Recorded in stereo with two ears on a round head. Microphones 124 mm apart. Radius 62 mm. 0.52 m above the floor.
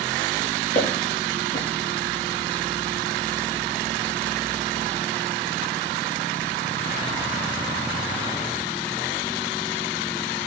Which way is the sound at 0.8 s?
60° left (ahead or behind).